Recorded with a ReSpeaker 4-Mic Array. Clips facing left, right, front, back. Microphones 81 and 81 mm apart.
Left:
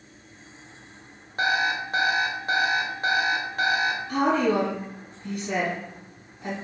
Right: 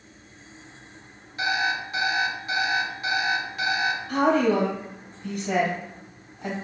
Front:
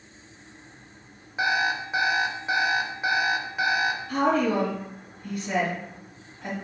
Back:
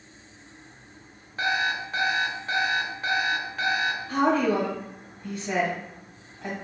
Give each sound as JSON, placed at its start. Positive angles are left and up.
{"t": 1.4, "sound": "an alarm clock", "azimuth_deg": 75, "distance_m": 0.6}
{"t": 4.1, "sound": "a woman speaking", "azimuth_deg": -115, "distance_m": 1.7}